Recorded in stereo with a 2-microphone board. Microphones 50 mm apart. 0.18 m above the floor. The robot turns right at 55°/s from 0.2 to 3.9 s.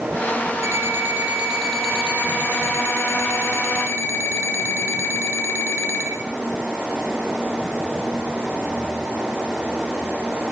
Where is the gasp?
I don't hear a gasp.